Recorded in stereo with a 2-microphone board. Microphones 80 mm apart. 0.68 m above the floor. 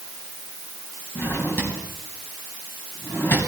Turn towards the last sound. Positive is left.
turn(degrees=25)  # may be behind; listen again after turning